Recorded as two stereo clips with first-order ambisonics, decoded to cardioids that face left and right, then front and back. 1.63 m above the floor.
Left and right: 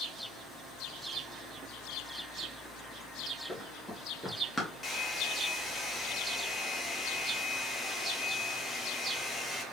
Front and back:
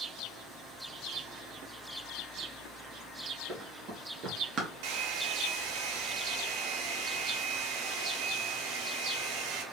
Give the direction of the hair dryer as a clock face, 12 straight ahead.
7 o'clock.